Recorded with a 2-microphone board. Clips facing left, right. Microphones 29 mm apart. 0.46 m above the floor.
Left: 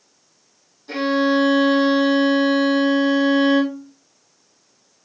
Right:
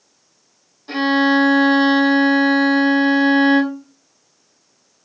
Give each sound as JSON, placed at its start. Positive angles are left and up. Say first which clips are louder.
{"t": 0.9, "sound": "a violin", "louder": "right 3 dB", "side_deg": -30, "distance_m": 3.0}